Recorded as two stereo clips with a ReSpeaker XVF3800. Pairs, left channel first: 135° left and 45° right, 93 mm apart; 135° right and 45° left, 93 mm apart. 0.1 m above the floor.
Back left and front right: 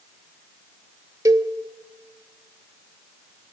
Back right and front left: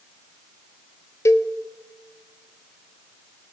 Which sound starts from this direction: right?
A cowbell, at 1.2 s.